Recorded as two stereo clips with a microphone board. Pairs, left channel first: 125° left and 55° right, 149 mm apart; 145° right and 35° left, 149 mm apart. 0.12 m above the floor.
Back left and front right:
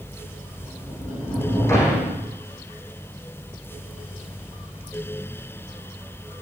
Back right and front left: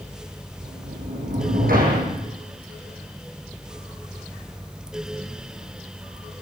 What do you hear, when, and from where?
0.6 s a sliding door: 50° left, 8.5 m